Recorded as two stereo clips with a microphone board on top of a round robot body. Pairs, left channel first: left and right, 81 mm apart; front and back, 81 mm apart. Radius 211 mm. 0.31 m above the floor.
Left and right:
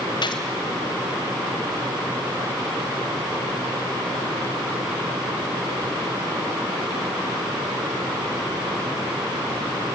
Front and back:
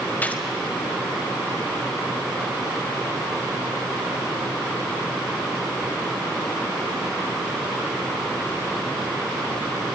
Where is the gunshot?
70° left, 2 m.